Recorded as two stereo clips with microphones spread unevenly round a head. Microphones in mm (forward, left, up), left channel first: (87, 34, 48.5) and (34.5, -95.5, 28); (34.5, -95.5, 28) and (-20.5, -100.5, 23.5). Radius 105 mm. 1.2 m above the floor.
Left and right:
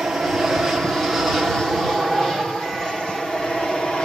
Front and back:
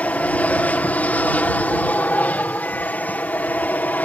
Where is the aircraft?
35° right; by 4.0 s 25° right.